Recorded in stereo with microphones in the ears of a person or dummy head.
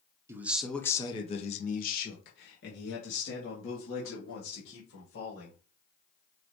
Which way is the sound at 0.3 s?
15° right (ahead or behind).